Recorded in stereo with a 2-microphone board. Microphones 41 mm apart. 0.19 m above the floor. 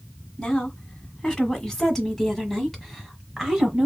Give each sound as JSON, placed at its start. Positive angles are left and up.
{"t": 0.4, "sound": "a woman speaking", "side_deg": 20, "distance_m": 1.8}